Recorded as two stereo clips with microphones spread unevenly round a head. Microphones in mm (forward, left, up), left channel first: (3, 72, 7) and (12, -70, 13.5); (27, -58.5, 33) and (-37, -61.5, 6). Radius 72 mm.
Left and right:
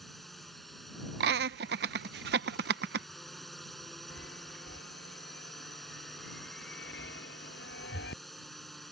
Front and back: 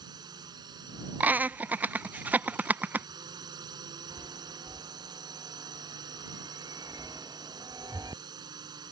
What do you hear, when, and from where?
0.0 s a drone: 175° right
1.2 s laughter: 105° right
4.1 s a chime: 115° left